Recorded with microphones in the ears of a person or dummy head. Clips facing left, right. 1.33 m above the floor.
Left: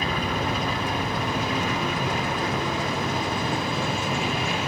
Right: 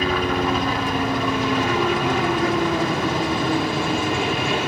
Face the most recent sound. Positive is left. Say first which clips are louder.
# right 6 dB
turn(degrees=-55)  # may be behind; listen again after turning